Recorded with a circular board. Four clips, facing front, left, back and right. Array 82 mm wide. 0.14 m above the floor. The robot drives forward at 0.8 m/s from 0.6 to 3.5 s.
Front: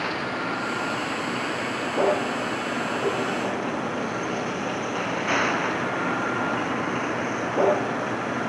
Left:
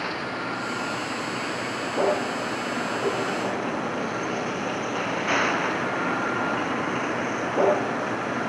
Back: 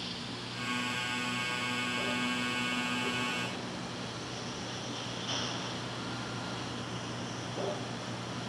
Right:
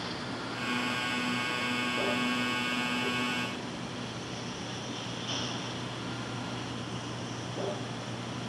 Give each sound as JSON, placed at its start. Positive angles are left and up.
{"t": 0.0, "sound": "a vehicle", "azimuth_deg": 30}